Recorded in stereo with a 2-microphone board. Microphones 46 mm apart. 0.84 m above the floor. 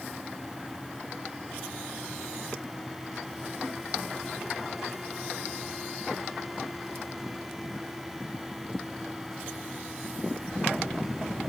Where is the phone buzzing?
No phone buzzing in this recording.